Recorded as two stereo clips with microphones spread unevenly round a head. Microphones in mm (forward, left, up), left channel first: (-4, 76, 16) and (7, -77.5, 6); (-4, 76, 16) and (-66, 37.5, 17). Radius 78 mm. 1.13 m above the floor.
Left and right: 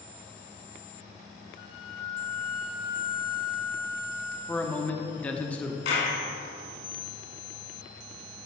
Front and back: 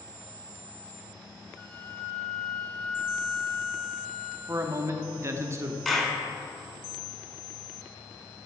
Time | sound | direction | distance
1.6 | a flute | 110° left | 1.4 m
4.5 | a man speaking | 175° left | 0.9 m
5.8 | a clap | 120° left | 2.5 m